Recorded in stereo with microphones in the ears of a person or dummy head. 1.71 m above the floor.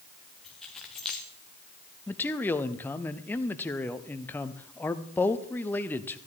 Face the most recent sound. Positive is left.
turn(degrees=15)  # may be behind; listen again after turning